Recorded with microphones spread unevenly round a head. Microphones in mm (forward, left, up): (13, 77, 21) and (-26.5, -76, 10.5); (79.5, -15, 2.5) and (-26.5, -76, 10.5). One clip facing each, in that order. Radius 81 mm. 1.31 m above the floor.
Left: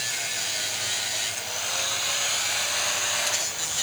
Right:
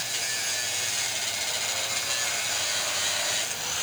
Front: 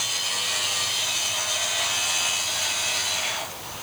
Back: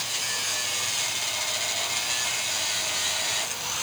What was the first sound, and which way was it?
Only background noise.